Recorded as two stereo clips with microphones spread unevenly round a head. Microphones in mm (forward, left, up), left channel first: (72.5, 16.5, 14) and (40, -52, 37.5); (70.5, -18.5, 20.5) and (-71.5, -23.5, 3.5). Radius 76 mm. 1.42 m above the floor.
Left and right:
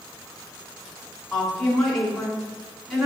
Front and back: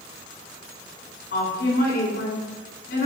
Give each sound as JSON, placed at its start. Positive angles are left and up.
{"t": 1.3, "sound": "a woman speaking", "azimuth_deg": -20, "distance_m": 4.0}